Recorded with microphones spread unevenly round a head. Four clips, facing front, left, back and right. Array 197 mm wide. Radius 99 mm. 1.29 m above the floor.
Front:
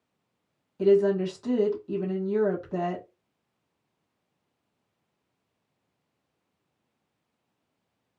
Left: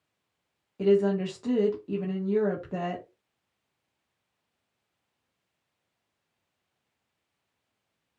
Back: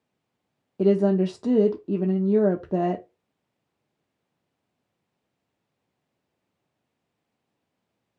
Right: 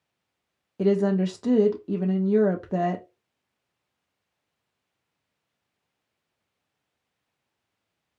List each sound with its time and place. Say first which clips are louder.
0.8 s a woman speaking: right 1 dB, back 1 dB; 155° right, 0.8 m